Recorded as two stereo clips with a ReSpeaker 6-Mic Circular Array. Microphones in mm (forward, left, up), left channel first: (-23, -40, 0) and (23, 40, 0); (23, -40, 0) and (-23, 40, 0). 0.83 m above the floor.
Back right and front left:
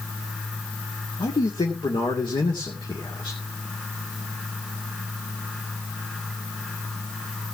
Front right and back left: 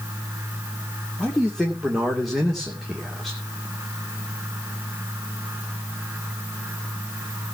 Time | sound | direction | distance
1.2 | a man speaking | 150° right | 2.5 m